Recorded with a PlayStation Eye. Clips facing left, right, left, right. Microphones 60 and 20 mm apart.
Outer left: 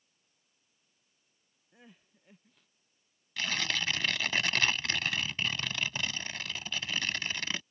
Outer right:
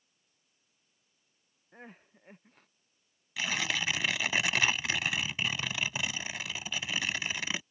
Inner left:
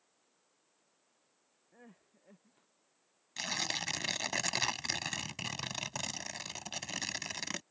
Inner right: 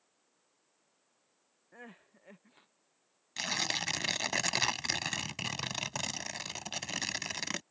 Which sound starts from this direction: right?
Crying, at 1.7 s.